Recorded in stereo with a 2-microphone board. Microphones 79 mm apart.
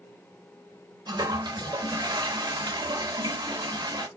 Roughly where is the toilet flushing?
Right.